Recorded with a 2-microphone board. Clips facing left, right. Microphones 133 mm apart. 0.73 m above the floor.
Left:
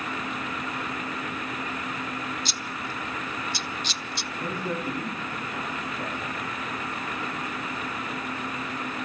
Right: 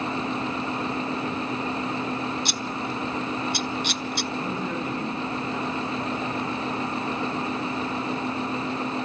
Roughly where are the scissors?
Right.